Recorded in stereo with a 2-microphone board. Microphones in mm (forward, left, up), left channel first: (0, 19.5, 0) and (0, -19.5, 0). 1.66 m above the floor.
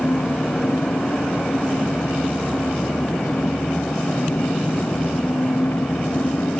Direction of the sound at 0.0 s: 85° left.